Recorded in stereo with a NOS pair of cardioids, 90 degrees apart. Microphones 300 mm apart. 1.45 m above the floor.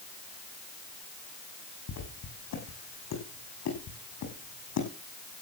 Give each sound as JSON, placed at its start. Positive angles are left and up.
{"t": 1.9, "sound": "footsteps", "azimuth_deg": 65, "distance_m": 5.5}